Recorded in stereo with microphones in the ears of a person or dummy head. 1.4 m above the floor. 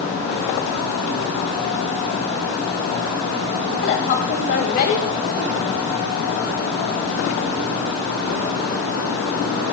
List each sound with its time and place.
3.8 s a woman speaking: 50° left (ahead or behind), 1.9 m